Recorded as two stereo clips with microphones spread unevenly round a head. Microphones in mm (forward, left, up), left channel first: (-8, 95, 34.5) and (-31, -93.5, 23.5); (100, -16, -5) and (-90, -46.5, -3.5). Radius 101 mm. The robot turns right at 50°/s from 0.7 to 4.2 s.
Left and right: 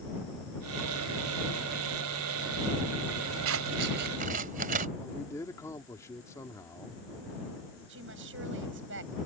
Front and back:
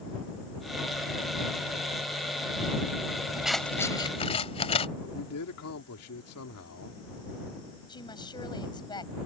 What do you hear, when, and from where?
3.5 s scissors: 85° right; by 4.9 s 45° right
5.0 s a man speaking: 5° left
7.9 s a woman speaking: 60° right